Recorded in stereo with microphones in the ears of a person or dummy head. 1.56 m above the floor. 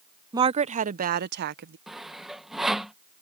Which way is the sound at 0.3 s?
25° right (ahead or behind).